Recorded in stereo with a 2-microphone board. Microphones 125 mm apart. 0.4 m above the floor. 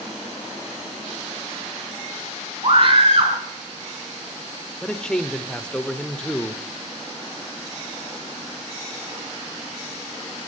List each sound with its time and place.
2.6 s a scream: 45° right (ahead or behind), 4.5 m
4.8 s a man speaking: 5° left (ahead or behind), 0.8 m